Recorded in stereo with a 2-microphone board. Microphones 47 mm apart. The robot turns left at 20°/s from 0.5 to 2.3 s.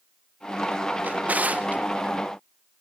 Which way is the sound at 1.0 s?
30° right (ahead or behind).